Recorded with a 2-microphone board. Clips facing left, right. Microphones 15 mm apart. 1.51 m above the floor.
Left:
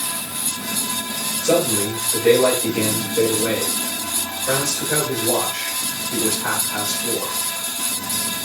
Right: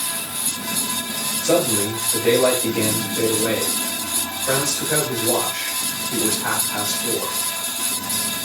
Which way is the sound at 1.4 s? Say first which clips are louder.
Even; 65° left (ahead or behind).